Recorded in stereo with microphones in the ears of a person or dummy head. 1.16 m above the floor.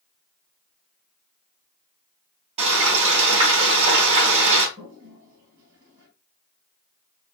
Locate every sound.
2.6 s frying: 40° right (ahead or behind), 3 m
4.8 s a toilet flushing: 25° right (ahead or behind), 3 m